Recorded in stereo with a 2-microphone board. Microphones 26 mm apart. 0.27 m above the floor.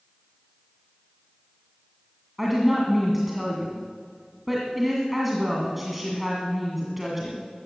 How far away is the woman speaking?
About 1.9 m.